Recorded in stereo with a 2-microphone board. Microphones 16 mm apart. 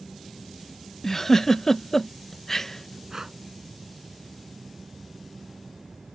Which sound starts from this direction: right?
Breathing, at 3.1 s.